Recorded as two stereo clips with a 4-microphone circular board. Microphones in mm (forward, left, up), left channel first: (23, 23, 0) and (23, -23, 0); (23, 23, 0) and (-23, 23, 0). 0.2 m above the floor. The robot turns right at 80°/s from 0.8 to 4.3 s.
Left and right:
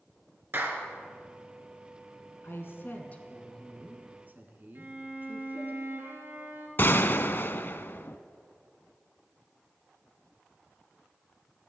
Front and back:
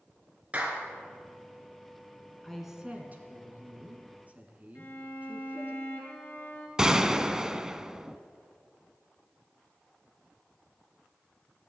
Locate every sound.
0.5 s a clap: 125° right, 2.5 m; by 0.8 s 120° right, 2.5 m
2.4 s a woman speaking: 85° left, 2 m; by 5.8 s 130° right, 2 m
4.8 s a violin: 50° right, 2.5 m
6.8 s a gunshot: 105° left, 0.6 m